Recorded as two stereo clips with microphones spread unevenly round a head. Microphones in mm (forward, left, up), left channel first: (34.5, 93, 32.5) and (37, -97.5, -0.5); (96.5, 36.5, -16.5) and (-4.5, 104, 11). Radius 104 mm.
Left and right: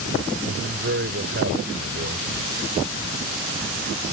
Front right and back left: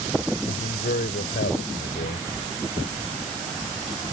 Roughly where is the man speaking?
Ahead right.